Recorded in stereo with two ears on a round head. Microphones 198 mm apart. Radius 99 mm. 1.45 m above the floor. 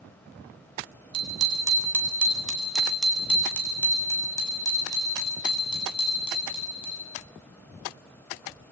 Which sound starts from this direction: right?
A bicycle bell, at 1.1 s.